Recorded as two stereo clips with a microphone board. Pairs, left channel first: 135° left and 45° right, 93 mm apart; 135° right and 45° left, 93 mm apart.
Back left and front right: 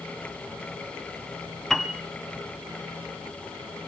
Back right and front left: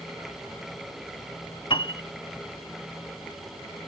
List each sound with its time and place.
1.7 s a piano: 140° right, 0.7 m